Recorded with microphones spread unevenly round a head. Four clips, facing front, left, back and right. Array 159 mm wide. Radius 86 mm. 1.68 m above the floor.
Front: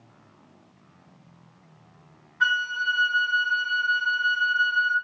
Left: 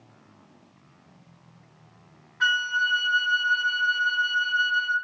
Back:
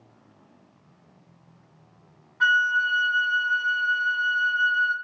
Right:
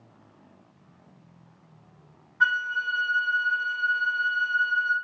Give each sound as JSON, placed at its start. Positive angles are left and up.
{"t": 2.4, "sound": "a flute", "azimuth_deg": -150, "distance_m": 1.8}